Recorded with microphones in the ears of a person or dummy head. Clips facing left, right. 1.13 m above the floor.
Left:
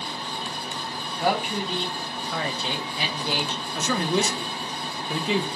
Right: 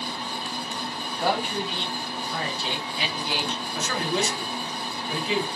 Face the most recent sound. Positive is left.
turn(degrees=85)